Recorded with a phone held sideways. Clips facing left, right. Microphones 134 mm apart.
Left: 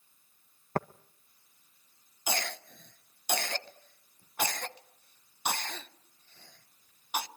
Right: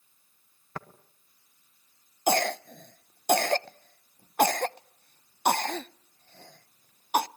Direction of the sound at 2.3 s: 55° right (ahead or behind).